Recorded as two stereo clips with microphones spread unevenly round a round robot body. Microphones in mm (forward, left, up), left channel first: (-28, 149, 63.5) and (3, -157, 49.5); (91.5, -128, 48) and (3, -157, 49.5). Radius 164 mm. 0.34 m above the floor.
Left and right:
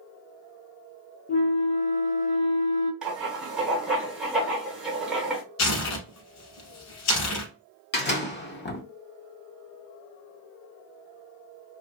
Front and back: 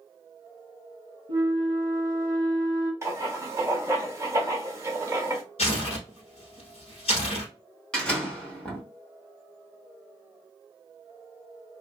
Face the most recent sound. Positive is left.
turn(degrees=90)